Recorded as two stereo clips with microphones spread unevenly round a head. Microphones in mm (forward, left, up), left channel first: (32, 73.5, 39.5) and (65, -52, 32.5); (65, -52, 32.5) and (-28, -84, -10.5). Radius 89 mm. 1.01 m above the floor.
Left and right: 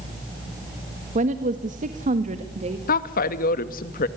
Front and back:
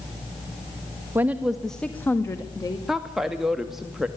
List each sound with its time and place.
1.1 s a woman speaking: 105° right, 1.6 m; by 2.8 s 40° right, 2.5 m
2.9 s a woman speaking: 120° left, 1.6 m